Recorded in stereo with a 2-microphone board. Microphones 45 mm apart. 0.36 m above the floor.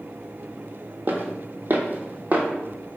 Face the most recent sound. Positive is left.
turn(degrees=-40)  # may be behind; listen again after turning